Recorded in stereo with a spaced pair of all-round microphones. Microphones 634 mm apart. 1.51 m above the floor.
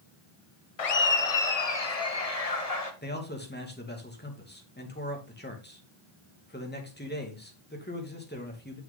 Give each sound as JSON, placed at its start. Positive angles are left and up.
{"t": 0.8, "sound": "laughter", "side_deg": 60, "distance_m": 0.8}
{"t": 3.0, "sound": "a man speaking", "side_deg": 15, "distance_m": 2.0}